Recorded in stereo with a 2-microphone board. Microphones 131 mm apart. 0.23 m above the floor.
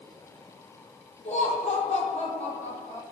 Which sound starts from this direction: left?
Laughter, at 1.2 s.